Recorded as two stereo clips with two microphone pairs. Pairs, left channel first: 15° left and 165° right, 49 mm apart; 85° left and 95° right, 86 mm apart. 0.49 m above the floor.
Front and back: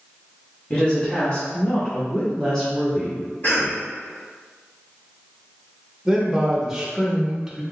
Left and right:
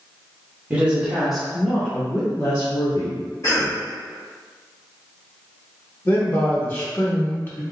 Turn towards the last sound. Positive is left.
turn(degrees=120)